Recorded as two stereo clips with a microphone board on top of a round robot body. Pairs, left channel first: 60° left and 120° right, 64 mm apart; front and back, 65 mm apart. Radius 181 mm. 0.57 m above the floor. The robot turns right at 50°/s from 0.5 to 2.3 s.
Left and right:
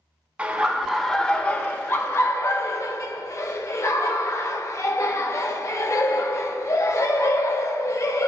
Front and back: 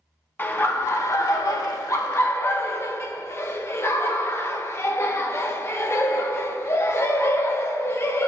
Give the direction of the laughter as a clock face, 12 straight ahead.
2 o'clock.